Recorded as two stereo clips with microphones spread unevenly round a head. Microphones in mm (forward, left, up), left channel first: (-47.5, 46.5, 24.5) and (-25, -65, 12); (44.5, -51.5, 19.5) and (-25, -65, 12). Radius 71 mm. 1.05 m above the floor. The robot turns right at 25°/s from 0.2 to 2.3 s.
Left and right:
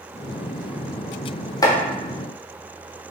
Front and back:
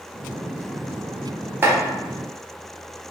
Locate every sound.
1.6 s chopping: 155° left, 0.7 m; by 1.8 s 160° left, 0.7 m